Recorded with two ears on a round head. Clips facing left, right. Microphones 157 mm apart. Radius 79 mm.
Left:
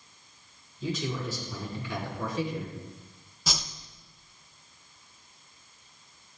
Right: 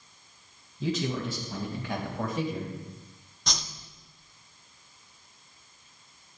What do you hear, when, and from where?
0.8 s a man speaking: 60° right (ahead or behind), 3.5 m; by 2.7 s 40° right (ahead or behind), 3 m
3.5 s a whoosh: 5° left (ahead or behind), 0.6 m